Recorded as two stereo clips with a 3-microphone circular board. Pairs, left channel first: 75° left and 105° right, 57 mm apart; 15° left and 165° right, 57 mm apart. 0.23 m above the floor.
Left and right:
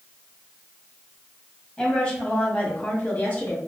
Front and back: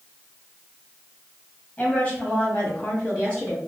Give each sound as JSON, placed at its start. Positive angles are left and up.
{"t": 1.8, "sound": "a woman speaking", "azimuth_deg": 25, "distance_m": 1.7}